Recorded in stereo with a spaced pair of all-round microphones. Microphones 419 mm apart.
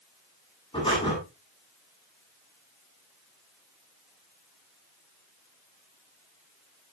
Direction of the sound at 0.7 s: 10° left (ahead or behind).